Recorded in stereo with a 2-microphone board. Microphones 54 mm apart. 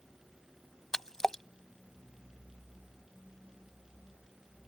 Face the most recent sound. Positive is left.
turn(degrees=10)  # may be behind; listen again after turning